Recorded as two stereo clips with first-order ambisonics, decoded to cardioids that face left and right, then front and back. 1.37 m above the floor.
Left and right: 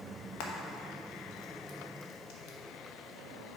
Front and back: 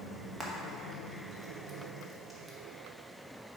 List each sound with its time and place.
0.4 s frying: 95° left, 1.1 m